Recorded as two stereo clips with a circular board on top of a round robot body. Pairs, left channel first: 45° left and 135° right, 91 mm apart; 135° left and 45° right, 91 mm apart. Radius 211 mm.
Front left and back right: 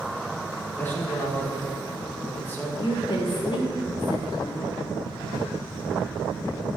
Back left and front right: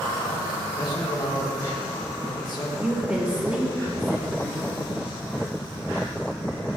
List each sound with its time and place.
0.7 s a man speaking: 110° left, 1.5 m
2.8 s a woman speaking: 35° left, 0.9 m